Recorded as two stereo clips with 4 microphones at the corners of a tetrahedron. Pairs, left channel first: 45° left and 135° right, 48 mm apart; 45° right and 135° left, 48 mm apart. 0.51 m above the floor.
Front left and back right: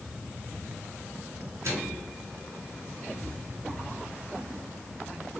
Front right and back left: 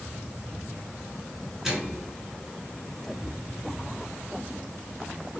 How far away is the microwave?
About 2 m.